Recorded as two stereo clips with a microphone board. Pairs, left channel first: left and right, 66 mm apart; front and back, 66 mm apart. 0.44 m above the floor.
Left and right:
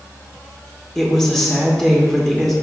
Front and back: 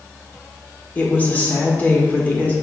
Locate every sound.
0.9 s a woman speaking: 15° left, 1.0 m